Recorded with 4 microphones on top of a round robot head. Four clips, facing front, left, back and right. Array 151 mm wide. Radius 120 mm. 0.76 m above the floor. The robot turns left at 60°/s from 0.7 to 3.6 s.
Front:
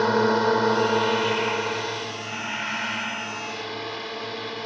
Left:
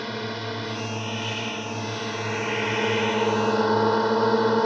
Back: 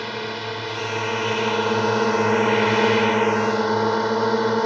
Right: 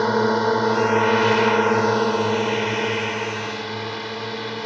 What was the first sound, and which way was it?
A drone, 50° right.